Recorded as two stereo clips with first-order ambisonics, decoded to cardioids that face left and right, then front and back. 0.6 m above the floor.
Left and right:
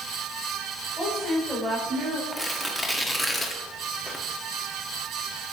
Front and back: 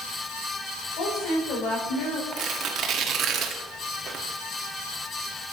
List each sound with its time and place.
1.0 s a woman speaking: 5° left, 3 m; by 2.2 s 20° right, 2 m
2.3 s tearing paper: 170° left, 1.0 m